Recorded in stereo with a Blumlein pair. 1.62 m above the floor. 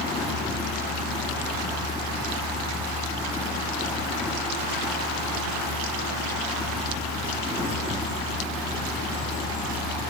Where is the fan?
10° left, 6 m.